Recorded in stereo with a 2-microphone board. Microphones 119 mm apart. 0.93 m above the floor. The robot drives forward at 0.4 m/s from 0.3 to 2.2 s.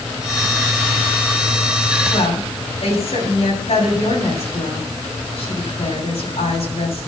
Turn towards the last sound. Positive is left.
turn(degrees=65)  # may be behind; listen again after turning